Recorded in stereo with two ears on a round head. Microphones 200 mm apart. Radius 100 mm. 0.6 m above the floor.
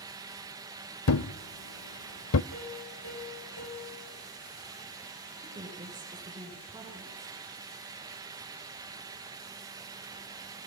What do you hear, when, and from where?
1.1 s a thud: 70° left (ahead or behind), 0.6 m
2.5 s a piano: 80° left, 10 m
5.4 s a woman speaking: 20° right (ahead or behind), 8 m